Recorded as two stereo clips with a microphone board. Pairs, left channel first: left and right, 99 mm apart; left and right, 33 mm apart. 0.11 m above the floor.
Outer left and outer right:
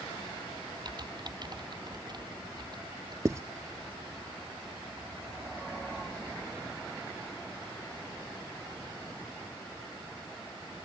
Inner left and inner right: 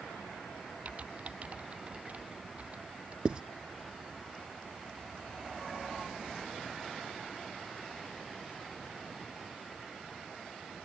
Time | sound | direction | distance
0.8 | typing on a keyboard | 45° right (ahead or behind) | ?
3.2 | writing | 30° right (ahead or behind) | ?